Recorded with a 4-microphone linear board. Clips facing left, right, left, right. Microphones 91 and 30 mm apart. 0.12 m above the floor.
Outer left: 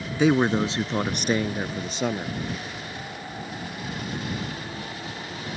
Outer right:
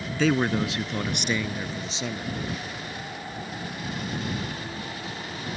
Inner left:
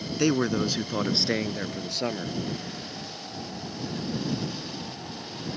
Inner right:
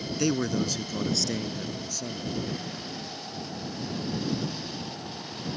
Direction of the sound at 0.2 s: 20° left (ahead or behind).